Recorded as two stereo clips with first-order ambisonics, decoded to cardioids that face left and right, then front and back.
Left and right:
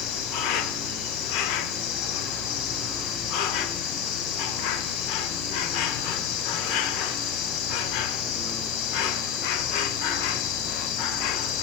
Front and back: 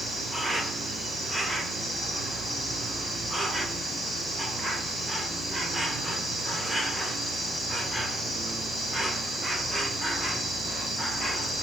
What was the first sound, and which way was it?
An insect, 100° left.